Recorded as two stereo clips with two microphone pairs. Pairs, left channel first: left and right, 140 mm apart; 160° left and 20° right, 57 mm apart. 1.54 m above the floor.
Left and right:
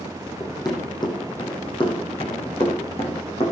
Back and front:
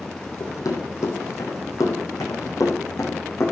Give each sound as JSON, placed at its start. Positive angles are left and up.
{"t": 0.4, "sound": "running footsteps", "azimuth_deg": 155, "distance_m": 4.5}